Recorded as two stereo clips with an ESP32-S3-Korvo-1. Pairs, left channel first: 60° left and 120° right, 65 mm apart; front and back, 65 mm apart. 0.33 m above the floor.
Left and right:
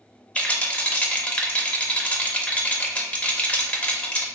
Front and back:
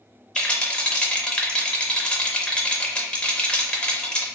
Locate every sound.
0.3 s a rattle: 45° left, 0.5 m